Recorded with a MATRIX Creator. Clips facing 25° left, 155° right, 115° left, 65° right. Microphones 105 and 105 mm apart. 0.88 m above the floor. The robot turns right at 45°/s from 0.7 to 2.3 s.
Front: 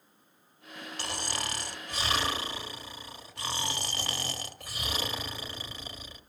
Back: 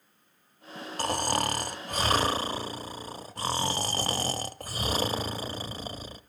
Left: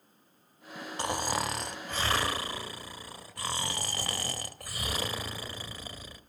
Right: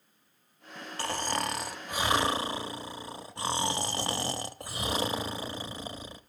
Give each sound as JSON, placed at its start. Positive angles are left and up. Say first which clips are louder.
{"t": 1.0, "sound": "snoring", "louder": "back 9 dB, even", "azimuth_deg": 180, "distance_m": 0.8}